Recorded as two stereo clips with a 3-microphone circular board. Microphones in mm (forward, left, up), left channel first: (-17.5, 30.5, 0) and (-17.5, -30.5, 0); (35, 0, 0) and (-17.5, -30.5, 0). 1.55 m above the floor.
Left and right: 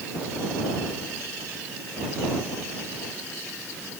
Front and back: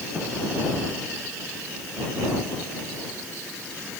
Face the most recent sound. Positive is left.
No sound to turn to.